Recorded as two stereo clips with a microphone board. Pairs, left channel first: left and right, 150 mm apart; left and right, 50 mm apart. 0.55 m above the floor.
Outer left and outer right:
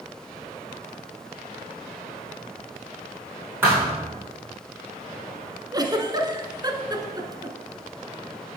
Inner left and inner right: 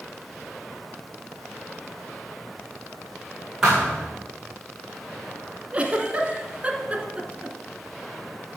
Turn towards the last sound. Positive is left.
turn(degrees=-25)  # may be behind; listen again after turning